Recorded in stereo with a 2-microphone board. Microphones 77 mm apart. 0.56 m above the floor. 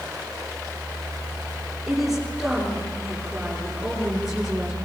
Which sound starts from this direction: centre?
A woman speaking, at 1.9 s.